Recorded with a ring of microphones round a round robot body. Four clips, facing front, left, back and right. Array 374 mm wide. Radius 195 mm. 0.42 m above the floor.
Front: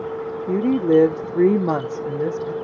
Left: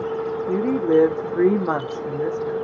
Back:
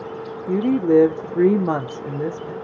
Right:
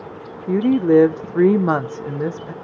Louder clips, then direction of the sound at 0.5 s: Right 5 dB, even; 95° right.